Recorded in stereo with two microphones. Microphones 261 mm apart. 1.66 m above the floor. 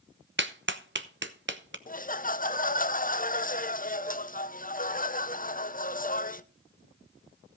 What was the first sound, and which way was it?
A clap, 45° right (ahead or behind).